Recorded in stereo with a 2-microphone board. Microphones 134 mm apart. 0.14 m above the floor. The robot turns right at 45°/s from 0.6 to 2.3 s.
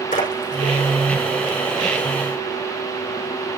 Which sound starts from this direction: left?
A splash, at 0.1 s.